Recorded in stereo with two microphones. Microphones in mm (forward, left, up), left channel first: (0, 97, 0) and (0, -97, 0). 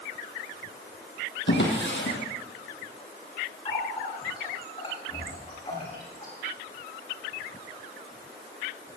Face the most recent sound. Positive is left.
turn(degrees=30)  # may be behind; listen again after turning